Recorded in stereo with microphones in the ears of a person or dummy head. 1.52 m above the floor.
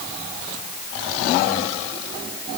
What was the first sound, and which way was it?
Only background noise.